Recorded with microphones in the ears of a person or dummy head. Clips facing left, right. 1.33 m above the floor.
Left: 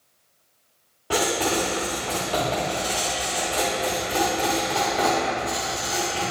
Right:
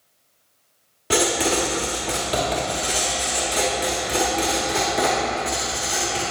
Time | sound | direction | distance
1.1 | writing | 20° right (ahead or behind) | 1.2 m